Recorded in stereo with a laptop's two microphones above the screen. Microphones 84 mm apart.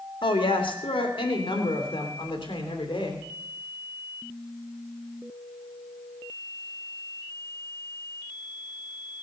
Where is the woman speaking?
80° left, 2 m; by 3.2 s 85° left, 3.5 m.